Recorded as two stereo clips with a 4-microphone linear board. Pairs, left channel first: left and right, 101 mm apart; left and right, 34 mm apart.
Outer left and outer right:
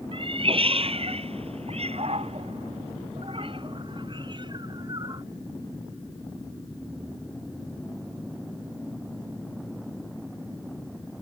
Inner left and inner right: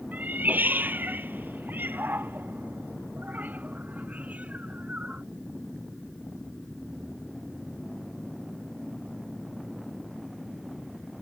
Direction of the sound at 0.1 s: 55° right (ahead or behind).